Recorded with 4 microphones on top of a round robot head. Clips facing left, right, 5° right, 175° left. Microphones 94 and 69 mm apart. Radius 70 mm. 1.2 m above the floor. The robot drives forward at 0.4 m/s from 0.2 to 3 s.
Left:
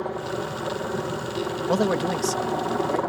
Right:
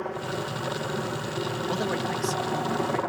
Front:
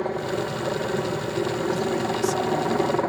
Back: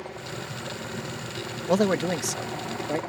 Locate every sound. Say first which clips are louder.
0.0 s a helicopter: left 3 dB, front 11 dB; 15° left
1.7 s a man speaking: left 8 dB, back 1 dB; 140° left; by 3.0 s 150° left